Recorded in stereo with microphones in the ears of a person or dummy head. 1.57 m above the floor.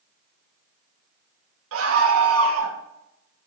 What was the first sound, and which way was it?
A scream, 80° right.